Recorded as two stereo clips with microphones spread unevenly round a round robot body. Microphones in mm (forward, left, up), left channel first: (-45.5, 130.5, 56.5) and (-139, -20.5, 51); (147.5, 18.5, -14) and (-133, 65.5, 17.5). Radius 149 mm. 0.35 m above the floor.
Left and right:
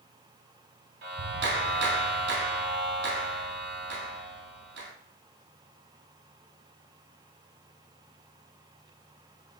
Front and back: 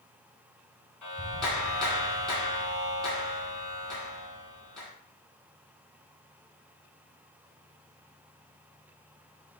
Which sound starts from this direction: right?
A clap, at 1.0 s.